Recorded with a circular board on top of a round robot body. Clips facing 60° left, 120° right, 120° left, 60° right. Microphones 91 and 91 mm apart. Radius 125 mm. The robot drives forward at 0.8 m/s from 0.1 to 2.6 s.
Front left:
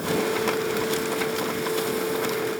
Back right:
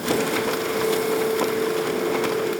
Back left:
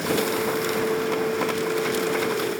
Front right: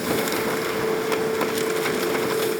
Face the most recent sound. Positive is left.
No sound to turn to.